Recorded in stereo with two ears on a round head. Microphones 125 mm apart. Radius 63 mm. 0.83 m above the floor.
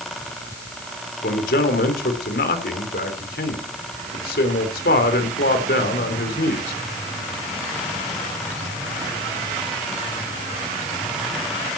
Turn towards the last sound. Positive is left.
turn(degrees=75)  # may be behind; listen again after turning